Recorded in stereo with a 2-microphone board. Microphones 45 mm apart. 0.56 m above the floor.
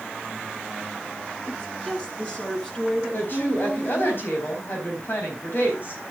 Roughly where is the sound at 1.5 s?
Left.